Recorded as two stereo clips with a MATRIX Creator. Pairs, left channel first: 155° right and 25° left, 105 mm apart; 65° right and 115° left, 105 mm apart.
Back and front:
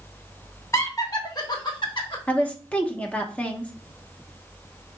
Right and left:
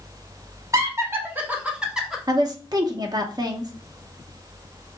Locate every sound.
0.7 s laughter: 155° left, 1.2 m; by 2.2 s 160° right, 1.3 m
2.3 s a woman speaking: 135° left, 0.7 m